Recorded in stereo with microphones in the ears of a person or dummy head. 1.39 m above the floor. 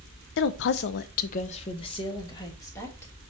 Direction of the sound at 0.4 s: 55° left (ahead or behind).